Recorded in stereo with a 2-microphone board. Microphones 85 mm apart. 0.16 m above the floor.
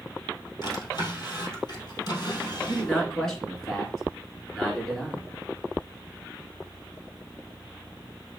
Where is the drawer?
55° left (ahead or behind), 2 m.